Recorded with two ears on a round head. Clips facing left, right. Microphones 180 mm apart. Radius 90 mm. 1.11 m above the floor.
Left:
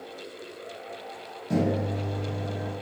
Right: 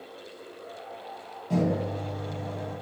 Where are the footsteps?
No footsteps in this recording.